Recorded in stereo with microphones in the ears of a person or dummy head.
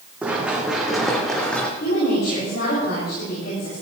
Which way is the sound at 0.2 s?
5° right (ahead or behind).